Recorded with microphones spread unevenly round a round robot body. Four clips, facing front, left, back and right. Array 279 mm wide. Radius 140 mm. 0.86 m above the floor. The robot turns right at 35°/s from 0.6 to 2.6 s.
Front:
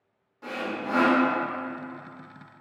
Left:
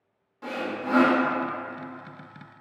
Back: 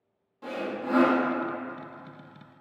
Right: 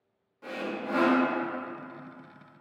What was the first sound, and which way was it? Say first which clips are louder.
Sawing: left 4 dB, even; 90° left.